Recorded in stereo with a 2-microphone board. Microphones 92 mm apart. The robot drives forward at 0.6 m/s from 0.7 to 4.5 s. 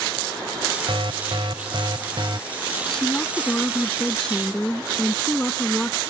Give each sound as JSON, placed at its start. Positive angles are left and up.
{"t": 0.9, "sound": "an alarm", "side_deg": -70}
{"t": 2.9, "sound": "a woman speaking", "side_deg": 10}